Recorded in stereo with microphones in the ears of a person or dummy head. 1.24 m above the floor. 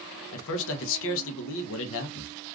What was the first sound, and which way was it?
A man speaking, 70° left (ahead or behind).